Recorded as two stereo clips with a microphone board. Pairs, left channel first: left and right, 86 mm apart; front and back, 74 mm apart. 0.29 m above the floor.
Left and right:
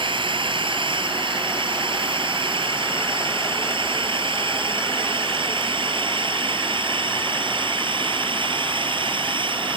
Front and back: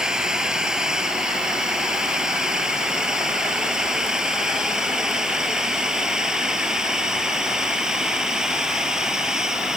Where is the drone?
100° right.